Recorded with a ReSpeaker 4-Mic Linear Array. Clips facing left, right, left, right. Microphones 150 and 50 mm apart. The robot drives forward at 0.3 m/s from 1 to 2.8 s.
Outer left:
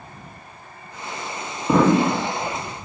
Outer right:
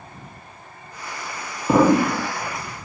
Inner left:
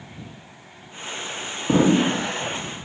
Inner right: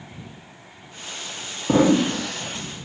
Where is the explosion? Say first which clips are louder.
Outer right 1 dB, inner right 1 dB; 5° right (ahead or behind), 1.1 m.